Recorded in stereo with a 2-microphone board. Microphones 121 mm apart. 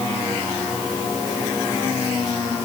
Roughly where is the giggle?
No giggle in this recording.